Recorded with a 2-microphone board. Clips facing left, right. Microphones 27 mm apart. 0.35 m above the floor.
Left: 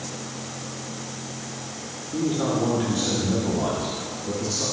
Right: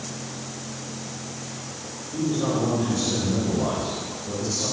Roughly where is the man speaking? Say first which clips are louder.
Even; left.